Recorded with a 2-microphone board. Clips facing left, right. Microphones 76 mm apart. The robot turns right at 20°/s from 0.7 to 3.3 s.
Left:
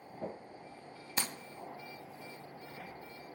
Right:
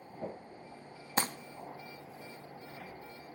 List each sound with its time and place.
1.2 s crumpling: 40° right (ahead or behind), 0.6 m